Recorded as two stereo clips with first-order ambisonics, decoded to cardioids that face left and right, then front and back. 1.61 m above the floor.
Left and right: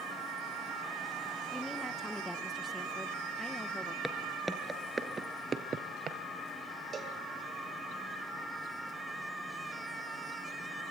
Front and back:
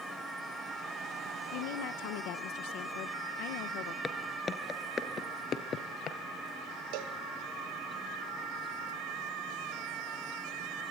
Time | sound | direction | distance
1.5 | a woman speaking | 5° left | 1.2 m
4.0 | footsteps | 15° left | 1.6 m
6.9 | a cowbell | 160° right | 2.5 m